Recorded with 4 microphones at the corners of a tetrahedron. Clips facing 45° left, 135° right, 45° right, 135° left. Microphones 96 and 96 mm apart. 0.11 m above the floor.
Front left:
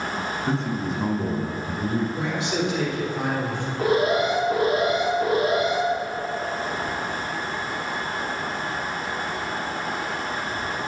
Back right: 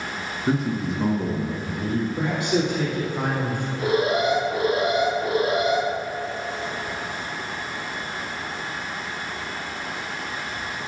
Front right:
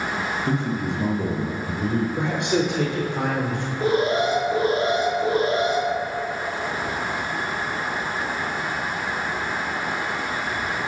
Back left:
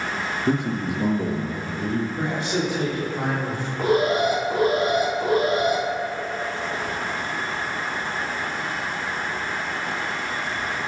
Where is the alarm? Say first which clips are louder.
Front left 1 dB, back left 1 dB; 90° left, 3.5 m.